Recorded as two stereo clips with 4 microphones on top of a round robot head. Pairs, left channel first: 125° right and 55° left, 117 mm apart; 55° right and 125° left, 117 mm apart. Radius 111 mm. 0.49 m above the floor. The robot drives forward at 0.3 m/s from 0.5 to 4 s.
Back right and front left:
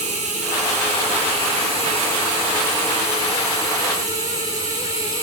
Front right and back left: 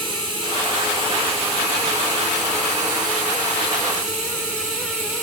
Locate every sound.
0.0 s running water: 80° left, 1.4 m; by 5.2 s 120° left, 1.6 m